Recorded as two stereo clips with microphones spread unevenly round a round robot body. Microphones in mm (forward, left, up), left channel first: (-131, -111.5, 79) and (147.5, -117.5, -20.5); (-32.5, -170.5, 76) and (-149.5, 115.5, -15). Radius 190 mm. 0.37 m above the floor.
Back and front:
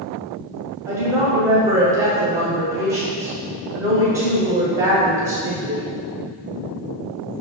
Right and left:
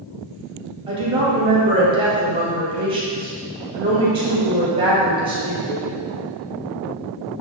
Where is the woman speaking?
60° left, 1.8 m.